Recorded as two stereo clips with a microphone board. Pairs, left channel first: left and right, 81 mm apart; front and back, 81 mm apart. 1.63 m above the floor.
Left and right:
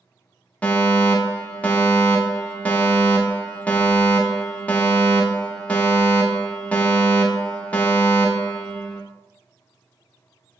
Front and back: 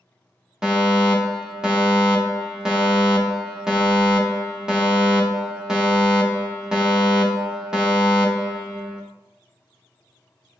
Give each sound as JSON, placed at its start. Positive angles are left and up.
{"t": 0.6, "sound": "a fire alarm", "azimuth_deg": 115, "distance_m": 0.7}